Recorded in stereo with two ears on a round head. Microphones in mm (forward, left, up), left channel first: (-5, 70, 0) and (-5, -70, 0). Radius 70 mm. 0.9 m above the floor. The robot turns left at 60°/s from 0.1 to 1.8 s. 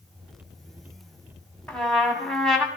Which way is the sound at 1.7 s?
10° left (ahead or behind).